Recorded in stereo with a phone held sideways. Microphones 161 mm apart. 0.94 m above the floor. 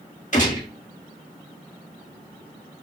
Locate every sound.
0.3 s a gunshot: 50° left (ahead or behind), 2 m